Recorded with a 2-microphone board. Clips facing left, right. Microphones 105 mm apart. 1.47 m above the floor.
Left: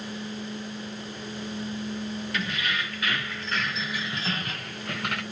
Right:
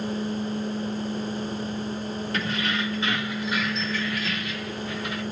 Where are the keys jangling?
35° right (ahead or behind), 1.8 m; by 5.2 s 70° left (ahead or behind), 1.3 m.